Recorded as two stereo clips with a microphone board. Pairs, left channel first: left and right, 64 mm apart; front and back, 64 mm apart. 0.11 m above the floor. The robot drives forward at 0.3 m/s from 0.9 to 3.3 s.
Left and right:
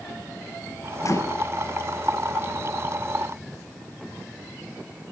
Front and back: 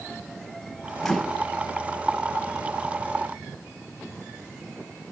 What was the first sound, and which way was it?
A microwave, 85° left.